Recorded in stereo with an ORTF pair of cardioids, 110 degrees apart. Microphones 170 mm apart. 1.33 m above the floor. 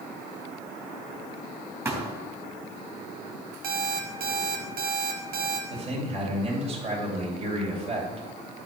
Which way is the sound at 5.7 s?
35° right.